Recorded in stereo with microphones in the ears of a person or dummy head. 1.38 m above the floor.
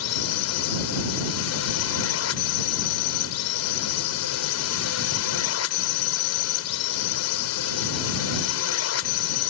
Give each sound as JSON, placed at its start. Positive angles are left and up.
{"t": 0.0, "sound": "a drone", "side_deg": 75}